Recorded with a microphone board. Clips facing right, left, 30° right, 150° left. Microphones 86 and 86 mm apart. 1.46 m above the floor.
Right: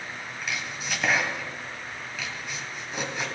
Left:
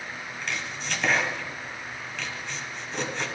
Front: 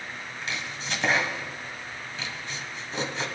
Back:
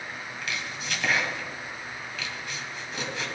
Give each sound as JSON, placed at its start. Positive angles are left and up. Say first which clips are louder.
{"t": 0.4, "sound": "chopping", "louder": "even, even", "azimuth_deg": -10, "distance_m": 1.4}